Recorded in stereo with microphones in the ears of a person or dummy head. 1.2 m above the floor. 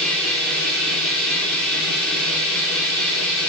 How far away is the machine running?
About 3.5 m.